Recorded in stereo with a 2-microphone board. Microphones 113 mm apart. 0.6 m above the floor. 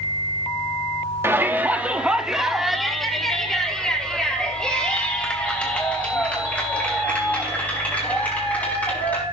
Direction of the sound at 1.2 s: 20° right (ahead or behind).